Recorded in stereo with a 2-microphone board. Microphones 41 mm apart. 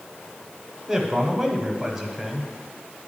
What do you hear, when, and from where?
0.9 s a man speaking: 15° right (ahead or behind), 1.0 m